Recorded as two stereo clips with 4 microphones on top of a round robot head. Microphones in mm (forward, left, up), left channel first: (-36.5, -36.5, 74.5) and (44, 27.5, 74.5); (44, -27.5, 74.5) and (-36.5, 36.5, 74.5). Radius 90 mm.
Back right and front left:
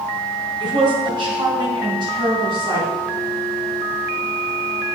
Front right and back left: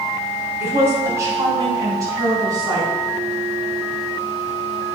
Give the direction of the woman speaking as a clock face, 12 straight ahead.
9 o'clock.